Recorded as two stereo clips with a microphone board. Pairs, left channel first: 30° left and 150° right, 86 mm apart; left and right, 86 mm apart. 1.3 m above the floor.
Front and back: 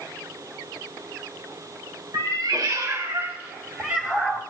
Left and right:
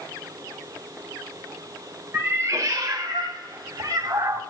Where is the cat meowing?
145° right, 1.6 m; by 4.4 s 65° right, 2 m.